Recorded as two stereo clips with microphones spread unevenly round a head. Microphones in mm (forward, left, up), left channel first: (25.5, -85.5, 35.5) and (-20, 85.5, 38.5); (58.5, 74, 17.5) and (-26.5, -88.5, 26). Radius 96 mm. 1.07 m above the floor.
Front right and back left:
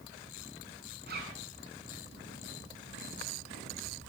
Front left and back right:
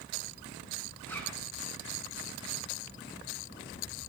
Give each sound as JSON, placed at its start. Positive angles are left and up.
{"t": 1.1, "sound": "a zipper", "azimuth_deg": 145, "distance_m": 7.5}